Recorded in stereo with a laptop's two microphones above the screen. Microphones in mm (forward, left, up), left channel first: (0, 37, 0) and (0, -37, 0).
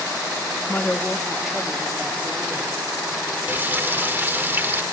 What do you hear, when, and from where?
0.7 s a woman speaking: 25° left (ahead or behind), 1.5 m; by 2.9 s 25° right (ahead or behind), 4 m
3.5 s frying: 25° right (ahead or behind), 1.5 m